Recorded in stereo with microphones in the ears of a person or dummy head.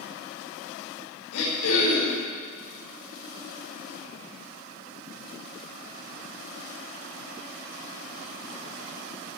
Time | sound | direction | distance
1.3 | throat clearing | 75° left (ahead or behind) | 4.5 m